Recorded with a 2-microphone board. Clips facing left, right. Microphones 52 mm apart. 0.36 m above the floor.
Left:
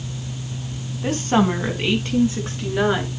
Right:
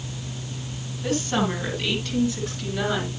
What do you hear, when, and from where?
1.0 s a woman speaking: 35° left (ahead or behind), 3 m